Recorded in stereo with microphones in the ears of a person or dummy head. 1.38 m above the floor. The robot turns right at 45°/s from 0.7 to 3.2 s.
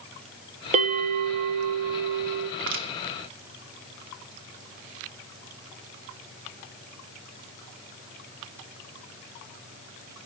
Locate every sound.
0.7 s a bell: 140° right, 0.9 m; by 2.5 s 65° right, 0.9 m
2.6 s crushing: 65° right (ahead or behind), 1.2 m; by 2.9 s 70° right (ahead or behind), 1.2 m